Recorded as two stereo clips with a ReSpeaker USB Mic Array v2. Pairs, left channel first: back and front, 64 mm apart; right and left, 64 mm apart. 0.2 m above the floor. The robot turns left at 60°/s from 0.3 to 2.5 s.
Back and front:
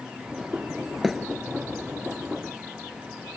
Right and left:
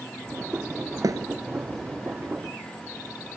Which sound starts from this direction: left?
A thud, at 1.0 s.